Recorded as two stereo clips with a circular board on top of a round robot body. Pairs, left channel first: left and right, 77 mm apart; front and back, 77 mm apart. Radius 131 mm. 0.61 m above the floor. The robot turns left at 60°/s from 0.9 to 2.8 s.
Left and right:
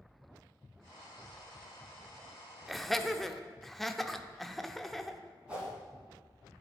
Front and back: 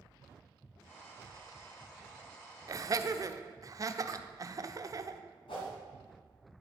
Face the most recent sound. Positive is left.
turn(degrees=-15)